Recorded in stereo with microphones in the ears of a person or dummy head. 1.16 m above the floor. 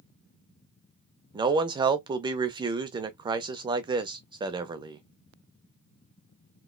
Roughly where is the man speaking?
Centre.